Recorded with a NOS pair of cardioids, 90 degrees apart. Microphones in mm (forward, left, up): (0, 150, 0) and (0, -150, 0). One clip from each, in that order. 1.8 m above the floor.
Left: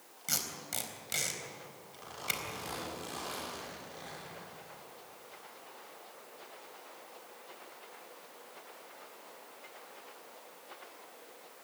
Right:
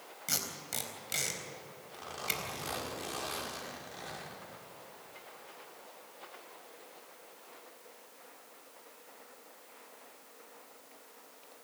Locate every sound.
0.3 s tape being pulled: straight ahead, 4 m
2.0 s a zipper: 30° right, 6.5 m